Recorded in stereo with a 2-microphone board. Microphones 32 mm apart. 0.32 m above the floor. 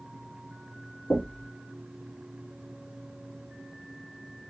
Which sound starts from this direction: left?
Knocking, at 1.1 s.